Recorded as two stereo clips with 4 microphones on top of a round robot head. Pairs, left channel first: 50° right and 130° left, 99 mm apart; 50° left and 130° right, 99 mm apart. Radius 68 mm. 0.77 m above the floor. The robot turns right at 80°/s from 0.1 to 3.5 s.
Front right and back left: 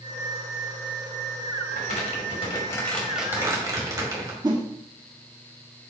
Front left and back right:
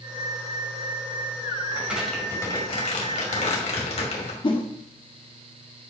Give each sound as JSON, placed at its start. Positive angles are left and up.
{"t": 1.7, "sound": "crumpling", "azimuth_deg": -70, "distance_m": 3.0}
{"t": 4.4, "sound": "a whoosh", "azimuth_deg": 85, "distance_m": 1.7}